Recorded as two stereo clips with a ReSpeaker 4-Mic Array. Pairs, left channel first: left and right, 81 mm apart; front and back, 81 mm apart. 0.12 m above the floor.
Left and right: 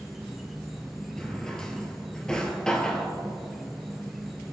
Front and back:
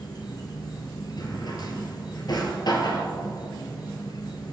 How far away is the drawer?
About 1.4 m.